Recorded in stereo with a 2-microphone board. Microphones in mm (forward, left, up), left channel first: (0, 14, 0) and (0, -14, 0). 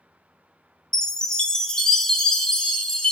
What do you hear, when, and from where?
0.9 s a chime: 20° left (ahead or behind), 0.5 m